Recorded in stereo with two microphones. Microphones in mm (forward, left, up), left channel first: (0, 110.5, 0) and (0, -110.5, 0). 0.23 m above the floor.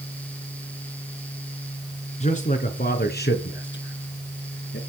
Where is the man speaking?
30° left (ahead or behind), 2.5 m; by 4.8 s 70° left (ahead or behind), 2.5 m.